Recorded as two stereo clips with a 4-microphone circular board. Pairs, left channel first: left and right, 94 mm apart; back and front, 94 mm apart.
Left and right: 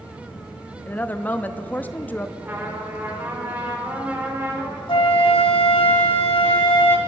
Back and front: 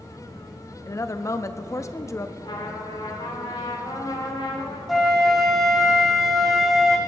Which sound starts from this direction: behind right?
A trumpet, at 2.4 s.